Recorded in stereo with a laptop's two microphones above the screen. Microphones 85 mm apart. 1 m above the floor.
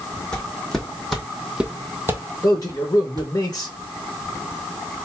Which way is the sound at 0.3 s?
10° left (ahead or behind).